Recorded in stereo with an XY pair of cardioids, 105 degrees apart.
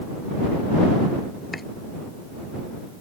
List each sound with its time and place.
1.5 s chopping: 20° left